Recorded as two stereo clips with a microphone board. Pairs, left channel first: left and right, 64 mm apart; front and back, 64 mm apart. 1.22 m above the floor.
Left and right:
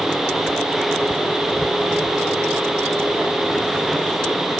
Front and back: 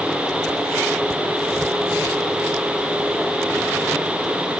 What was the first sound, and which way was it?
Only background noise.